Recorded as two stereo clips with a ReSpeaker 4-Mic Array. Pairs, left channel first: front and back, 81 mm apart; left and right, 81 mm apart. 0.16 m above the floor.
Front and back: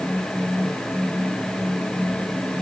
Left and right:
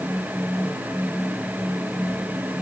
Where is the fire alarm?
I don't hear a fire alarm.